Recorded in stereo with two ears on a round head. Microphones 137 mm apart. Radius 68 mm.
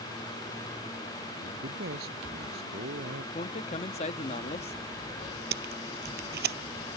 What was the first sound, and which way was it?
A man speaking, 70° right (ahead or behind).